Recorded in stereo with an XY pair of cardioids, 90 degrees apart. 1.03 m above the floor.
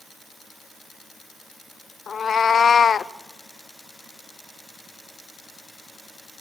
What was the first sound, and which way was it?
A cat meowing, 50° left.